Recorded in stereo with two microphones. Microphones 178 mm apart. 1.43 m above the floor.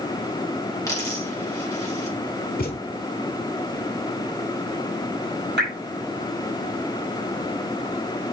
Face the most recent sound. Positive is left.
turn(degrees=-80)